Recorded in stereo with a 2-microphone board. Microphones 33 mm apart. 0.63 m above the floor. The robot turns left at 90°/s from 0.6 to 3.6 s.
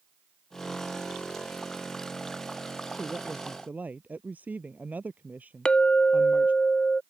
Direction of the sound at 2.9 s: 5° left.